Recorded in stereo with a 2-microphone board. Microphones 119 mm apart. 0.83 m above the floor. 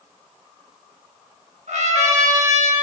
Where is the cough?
No cough in this recording.